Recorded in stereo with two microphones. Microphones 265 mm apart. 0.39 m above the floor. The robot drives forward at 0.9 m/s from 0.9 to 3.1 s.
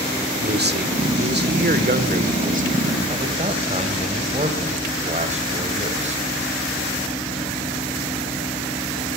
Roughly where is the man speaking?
Right.